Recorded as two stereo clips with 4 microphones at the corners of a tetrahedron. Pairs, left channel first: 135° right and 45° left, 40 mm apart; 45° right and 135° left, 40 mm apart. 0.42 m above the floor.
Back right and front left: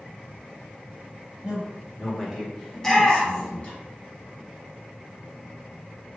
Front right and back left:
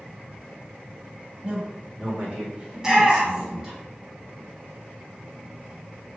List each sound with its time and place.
1.4 s a man speaking: 90° left, 1.1 m; by 3.7 s 160° right, 1.1 m
2.7 s a shout: 175° right, 0.8 m